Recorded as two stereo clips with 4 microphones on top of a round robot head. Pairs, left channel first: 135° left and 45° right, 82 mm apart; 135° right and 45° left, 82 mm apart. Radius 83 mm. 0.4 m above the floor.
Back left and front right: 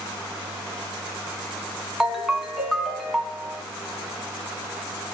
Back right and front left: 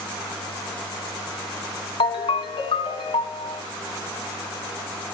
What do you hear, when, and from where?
2.0 s a ringtone: 135° right, 3 m